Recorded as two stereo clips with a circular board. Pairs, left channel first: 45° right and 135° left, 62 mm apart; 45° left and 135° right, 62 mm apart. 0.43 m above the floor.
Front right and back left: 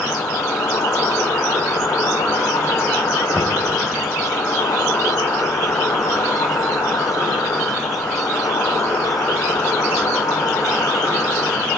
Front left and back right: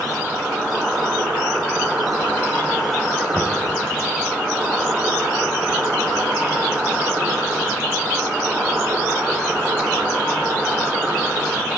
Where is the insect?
65° right, 6.5 m.